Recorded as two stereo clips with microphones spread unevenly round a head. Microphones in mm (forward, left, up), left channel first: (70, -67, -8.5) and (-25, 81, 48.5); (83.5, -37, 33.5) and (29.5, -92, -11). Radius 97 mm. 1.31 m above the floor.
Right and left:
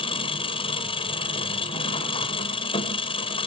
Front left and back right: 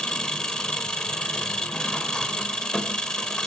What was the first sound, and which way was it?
An engine running, 15° left.